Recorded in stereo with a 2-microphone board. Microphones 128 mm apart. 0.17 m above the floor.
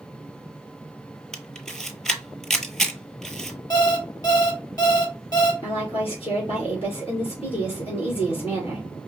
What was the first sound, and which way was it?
A camera shutter, 5° left (ahead or behind).